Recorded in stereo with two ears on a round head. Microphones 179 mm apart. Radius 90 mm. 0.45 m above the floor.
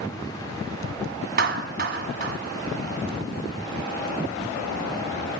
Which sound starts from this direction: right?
A clap, at 1.4 s.